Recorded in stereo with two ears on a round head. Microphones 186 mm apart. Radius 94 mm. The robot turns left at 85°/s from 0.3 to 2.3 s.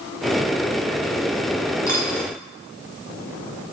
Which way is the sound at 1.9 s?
15° left (ahead or behind).